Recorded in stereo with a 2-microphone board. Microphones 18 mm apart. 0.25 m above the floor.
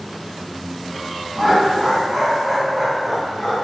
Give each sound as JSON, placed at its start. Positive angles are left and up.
{"t": 1.4, "sound": "laughter", "side_deg": -10, "distance_m": 1.8}